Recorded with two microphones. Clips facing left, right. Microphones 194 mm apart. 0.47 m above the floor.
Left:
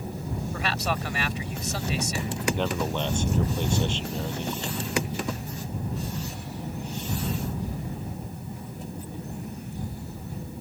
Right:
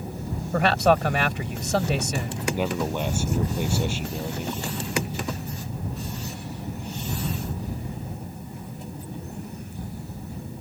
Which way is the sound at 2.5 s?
10° right (ahead or behind).